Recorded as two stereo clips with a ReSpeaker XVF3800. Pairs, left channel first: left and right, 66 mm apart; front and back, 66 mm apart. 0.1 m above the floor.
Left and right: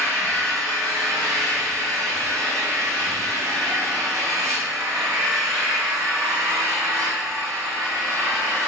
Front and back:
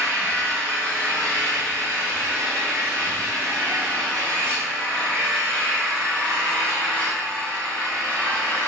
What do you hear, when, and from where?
0.0 s an engine running: 70° right, 4.5 m